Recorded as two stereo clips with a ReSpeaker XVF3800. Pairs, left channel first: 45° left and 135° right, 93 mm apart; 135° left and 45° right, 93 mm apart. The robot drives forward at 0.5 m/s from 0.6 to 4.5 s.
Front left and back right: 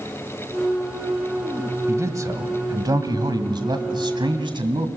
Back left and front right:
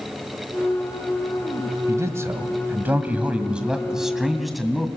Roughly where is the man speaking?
Right.